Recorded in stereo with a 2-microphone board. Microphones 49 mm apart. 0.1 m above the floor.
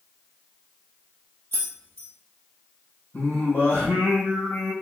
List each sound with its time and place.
1.5 s keys jangling: 50° left (ahead or behind), 2 m
3.1 s singing: 55° left (ahead or behind), 2.5 m